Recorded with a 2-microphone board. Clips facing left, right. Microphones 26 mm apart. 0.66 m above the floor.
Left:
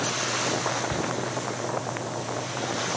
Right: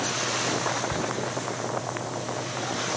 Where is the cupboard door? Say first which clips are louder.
Even; 30° left (ahead or behind).